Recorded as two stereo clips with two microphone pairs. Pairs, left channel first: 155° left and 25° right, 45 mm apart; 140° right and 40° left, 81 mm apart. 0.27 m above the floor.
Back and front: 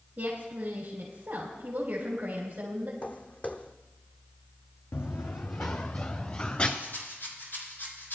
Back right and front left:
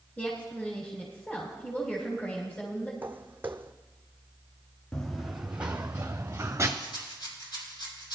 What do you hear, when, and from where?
0.2 s a woman speaking: 70° right, 3 m
3.0 s footsteps: 105° left, 0.8 m
4.9 s running footsteps: 135° left, 0.9 m; by 6.7 s 95° left, 2.0 m
6.8 s a rattle: 170° right, 3.5 m